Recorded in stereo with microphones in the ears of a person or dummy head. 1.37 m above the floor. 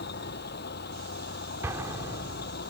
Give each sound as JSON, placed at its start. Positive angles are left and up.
{"t": 0.0, "sound": "a vehicle", "side_deg": 50}
{"t": 1.6, "sound": "an explosion", "side_deg": -15}